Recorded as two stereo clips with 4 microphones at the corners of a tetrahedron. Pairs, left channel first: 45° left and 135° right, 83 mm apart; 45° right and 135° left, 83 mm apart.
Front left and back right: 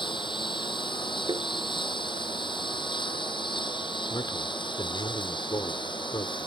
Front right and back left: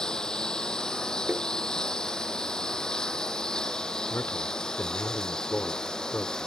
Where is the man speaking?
20° left.